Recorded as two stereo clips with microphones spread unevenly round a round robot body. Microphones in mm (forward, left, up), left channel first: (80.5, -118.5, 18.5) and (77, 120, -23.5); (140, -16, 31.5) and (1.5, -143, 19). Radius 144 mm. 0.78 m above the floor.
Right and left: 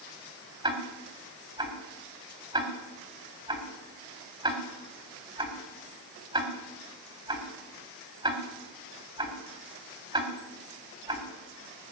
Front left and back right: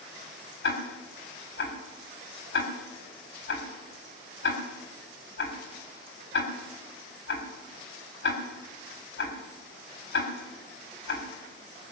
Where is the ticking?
25° left, 3.5 m.